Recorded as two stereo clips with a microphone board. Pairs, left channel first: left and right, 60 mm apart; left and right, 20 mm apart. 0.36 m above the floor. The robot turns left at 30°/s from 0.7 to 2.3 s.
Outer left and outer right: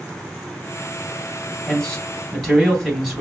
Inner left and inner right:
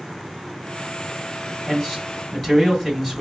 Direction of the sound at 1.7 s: 20° left (ahead or behind).